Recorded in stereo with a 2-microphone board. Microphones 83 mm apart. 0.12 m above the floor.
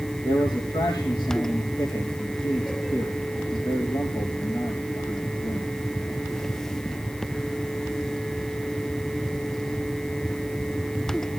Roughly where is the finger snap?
I don't hear a finger snap.